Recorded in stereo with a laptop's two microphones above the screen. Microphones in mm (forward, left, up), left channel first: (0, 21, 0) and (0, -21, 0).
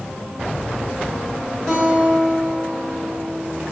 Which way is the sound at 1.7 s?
20° left (ahead or behind).